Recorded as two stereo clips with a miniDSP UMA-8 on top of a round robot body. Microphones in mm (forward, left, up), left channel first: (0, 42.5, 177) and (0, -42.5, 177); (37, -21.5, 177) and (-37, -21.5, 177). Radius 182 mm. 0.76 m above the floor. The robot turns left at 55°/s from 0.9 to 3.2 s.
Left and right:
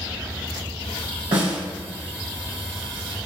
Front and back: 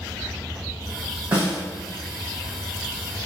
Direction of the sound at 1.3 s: 115° right.